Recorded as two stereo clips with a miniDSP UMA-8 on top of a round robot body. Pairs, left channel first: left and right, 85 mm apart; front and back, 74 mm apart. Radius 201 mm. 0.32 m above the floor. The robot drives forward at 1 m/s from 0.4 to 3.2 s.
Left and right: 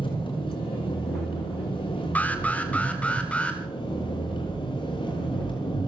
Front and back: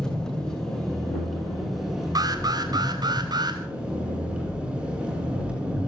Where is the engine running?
80° left, 7 m; by 5.9 s 105° left, 7 m.